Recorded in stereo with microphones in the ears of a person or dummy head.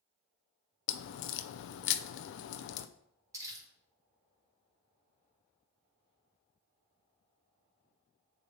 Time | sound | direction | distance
0.9 | a crack | 65° left (ahead or behind) | 0.5 m
3.3 | crumpling | 15° right (ahead or behind) | 2.5 m